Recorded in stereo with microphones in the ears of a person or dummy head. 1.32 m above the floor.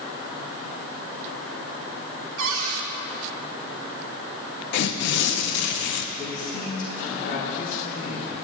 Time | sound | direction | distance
2.4 | a cupboard door | 75° right (ahead or behind) | 2.0 m
4.7 | tearing paper | 70° left (ahead or behind) | 0.8 m
6.2 | a man speaking | 55° left (ahead or behind) | 3 m